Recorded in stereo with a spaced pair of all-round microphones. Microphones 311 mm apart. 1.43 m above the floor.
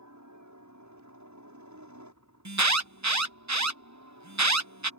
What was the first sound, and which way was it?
A helicopter, 65° right (ahead or behind).